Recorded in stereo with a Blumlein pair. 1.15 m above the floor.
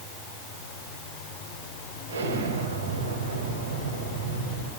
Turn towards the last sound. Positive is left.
turn(degrees=-65)